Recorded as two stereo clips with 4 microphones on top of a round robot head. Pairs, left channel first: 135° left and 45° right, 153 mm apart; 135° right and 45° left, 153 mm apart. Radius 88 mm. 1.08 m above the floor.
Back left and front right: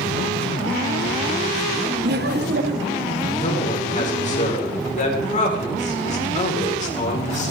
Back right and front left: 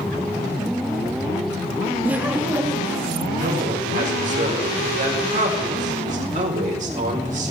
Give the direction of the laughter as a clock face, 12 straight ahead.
1 o'clock.